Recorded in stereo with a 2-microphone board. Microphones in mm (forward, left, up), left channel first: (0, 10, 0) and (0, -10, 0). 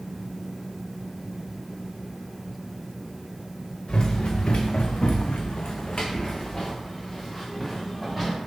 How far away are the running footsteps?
About 1.0 m.